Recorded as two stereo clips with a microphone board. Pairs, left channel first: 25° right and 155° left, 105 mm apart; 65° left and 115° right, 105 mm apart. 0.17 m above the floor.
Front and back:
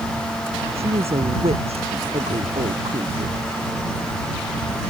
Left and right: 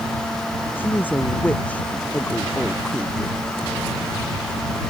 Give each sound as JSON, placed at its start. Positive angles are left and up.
{"t": 0.8, "sound": "a woman speaking", "azimuth_deg": 140}